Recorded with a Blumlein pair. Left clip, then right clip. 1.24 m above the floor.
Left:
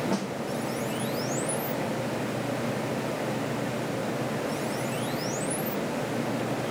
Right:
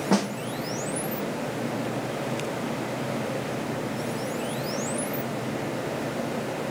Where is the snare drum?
65° right, 0.6 m.